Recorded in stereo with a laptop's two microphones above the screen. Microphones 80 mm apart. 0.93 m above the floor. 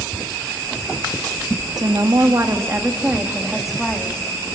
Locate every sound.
1.8 s a woman speaking: 55° right (ahead or behind), 1.8 m; by 4.2 s 10° left (ahead or behind), 2 m